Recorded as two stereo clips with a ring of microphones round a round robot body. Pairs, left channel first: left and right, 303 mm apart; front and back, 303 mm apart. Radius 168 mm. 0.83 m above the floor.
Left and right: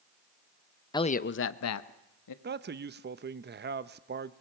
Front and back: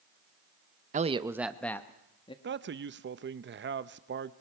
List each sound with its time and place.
0.9 s a man speaking: 155° left, 0.7 m; by 2.3 s 75° left, 1.5 m
2.4 s a man speaking: 135° right, 0.8 m